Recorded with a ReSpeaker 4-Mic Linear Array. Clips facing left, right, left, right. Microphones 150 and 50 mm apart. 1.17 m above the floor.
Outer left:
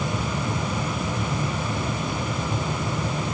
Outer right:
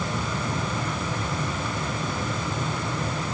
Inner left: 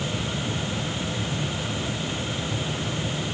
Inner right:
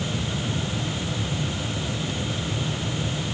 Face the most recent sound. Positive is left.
No sound to turn to.